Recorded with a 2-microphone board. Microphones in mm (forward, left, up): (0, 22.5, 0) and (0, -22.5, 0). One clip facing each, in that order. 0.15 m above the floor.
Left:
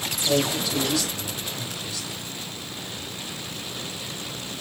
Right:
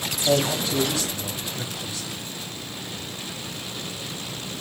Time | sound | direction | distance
0.2 | a man speaking | 30° right (ahead or behind) | 6.5 m